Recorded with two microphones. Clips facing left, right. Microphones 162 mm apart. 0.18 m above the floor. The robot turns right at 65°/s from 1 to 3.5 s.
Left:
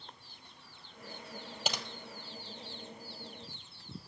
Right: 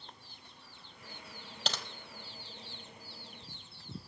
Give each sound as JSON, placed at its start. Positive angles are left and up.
{"t": 1.6, "sound": "typing on a keyboard", "side_deg": 5, "distance_m": 1.2}